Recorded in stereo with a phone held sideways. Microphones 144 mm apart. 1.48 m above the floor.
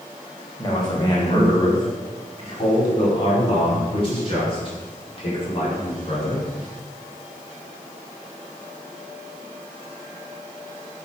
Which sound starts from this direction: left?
A man speaking, at 0.6 s.